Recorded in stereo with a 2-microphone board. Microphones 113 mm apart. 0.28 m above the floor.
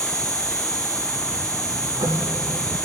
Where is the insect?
30° right (ahead or behind), 2.5 m.